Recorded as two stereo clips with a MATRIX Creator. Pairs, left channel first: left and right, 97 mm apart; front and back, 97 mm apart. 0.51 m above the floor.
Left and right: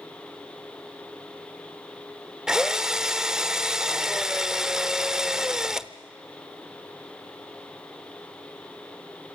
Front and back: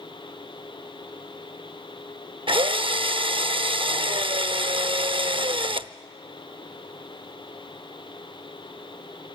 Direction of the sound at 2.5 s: 175° right.